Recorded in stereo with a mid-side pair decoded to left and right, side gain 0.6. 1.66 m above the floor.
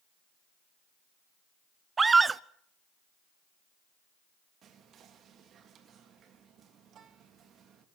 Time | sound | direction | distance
2.0 | a scream | 25° right | 0.8 m
4.6 | whispering | 50° right | 3 m